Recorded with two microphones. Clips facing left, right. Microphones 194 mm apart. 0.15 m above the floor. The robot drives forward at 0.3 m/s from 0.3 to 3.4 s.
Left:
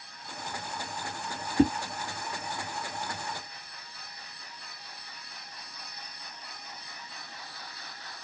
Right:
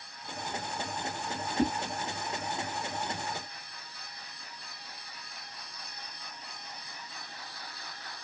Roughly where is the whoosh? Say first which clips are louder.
Left 6 dB; left.